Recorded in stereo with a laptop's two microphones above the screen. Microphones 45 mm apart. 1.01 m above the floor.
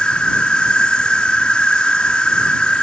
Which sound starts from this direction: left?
An insect, at 0.0 s.